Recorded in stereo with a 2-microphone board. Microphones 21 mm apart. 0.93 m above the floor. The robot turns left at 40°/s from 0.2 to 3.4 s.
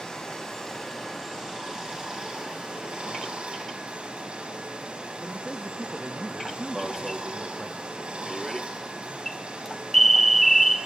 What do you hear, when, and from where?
0.0 s running water: 20° left, 5 m; by 10.9 s 110° right, 5 m
5.2 s a man speaking: 10° right (ahead or behind), 0.7 m
6.8 s an alarm: 10° left (ahead or behind), 0.9 m